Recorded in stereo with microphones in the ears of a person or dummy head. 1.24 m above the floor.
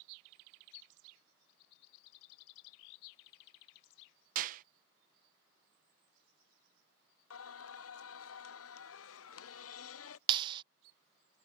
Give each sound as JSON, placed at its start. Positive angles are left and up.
{"t": 4.3, "sound": "a clap", "side_deg": -50}
{"t": 7.3, "sound": "singing", "side_deg": 70}
{"t": 10.3, "sound": "a clap", "side_deg": -30}